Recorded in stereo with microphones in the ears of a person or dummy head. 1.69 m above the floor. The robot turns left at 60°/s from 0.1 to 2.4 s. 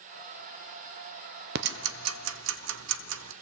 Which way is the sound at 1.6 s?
60° right (ahead or behind).